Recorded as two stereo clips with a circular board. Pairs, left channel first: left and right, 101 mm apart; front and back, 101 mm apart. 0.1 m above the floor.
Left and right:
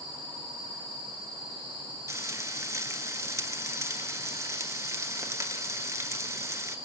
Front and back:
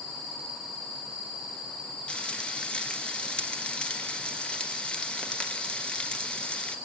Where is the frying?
70° right, 1.0 m.